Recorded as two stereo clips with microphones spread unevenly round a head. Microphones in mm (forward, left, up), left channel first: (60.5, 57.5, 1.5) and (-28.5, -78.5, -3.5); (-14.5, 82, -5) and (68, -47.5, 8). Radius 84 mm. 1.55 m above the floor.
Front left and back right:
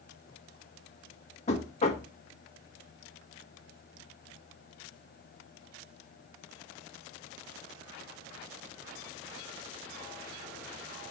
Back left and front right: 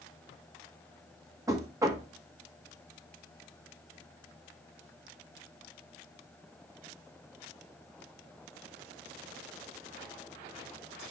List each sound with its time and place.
1.5 s knocking: 10° left, 1.5 m